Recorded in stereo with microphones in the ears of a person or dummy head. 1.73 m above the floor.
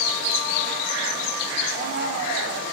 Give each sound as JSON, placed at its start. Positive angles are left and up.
{"t": 1.7, "sound": "a blender", "side_deg": -50, "distance_m": 4.0}